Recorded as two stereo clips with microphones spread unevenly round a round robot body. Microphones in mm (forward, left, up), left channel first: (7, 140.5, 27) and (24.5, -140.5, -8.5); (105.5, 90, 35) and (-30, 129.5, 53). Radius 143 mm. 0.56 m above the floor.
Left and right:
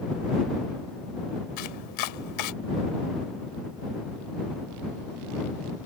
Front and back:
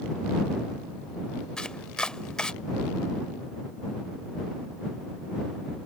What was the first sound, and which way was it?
Chopping, 70° left.